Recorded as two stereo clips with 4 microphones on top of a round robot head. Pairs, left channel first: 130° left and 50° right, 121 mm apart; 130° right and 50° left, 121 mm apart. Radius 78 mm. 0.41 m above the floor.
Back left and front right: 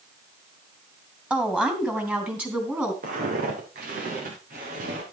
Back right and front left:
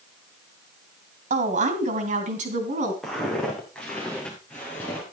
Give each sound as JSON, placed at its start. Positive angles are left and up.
{"t": 1.3, "sound": "a woman speaking", "azimuth_deg": 35, "distance_m": 2.5}
{"t": 3.0, "sound": "footsteps", "azimuth_deg": -45, "distance_m": 4.0}